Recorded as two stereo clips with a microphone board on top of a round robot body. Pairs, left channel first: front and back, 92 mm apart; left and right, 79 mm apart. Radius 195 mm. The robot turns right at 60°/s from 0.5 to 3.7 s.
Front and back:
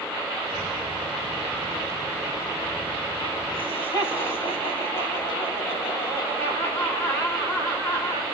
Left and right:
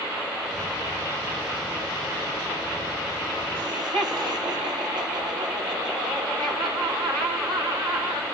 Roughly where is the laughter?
Right.